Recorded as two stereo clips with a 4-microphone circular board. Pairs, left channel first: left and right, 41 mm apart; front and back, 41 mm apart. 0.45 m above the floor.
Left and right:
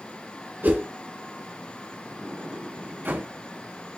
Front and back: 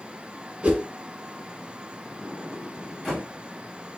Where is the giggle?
I don't hear a giggle.